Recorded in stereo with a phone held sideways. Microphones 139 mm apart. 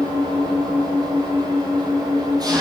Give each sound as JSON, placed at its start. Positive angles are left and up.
{"t": 0.0, "sound": "an engine running", "side_deg": -30, "distance_m": 7.5}